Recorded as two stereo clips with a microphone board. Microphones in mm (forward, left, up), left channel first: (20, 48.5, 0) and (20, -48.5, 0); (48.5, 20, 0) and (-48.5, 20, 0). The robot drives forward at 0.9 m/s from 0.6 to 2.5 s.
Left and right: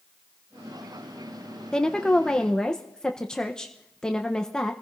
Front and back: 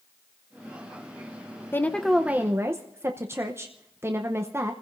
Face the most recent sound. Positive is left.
turn(degrees=165)